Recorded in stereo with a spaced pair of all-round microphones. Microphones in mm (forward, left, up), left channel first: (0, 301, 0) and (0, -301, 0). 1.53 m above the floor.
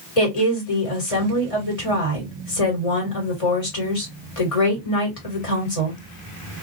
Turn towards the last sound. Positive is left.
turn(degrees=60)  # may be behind; listen again after turning